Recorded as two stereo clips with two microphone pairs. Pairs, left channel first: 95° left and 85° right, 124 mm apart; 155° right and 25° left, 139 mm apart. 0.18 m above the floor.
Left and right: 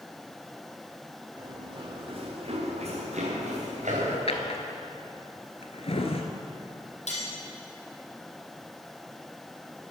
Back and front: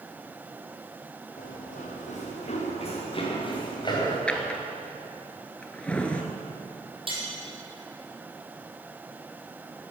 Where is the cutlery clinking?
75° left, 3.5 m.